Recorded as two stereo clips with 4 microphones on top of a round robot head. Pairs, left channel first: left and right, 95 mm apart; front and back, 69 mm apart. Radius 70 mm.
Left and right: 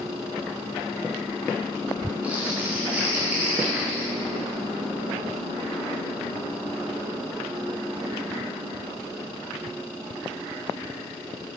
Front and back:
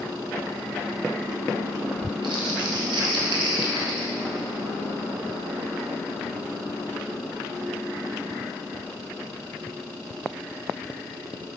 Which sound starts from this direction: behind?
Crumpling, at 2.2 s.